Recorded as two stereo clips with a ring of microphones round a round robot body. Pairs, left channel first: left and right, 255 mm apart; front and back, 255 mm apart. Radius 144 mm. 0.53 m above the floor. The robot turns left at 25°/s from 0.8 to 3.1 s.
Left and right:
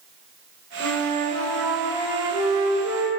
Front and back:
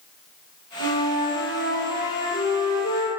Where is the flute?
10° left, 1.1 m; by 3.1 s 45° right, 1.1 m.